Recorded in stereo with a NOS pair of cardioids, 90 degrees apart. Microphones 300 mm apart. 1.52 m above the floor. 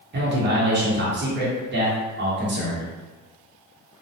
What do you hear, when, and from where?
0.1 s a man speaking: 35° right, 1.1 m